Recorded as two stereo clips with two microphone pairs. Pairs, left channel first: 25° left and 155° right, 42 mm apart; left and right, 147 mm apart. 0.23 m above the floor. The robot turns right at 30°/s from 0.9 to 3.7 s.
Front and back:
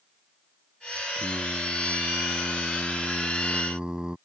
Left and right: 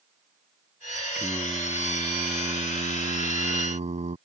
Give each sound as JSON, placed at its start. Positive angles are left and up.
{"t": 1.1, "sound": "singing", "azimuth_deg": -175}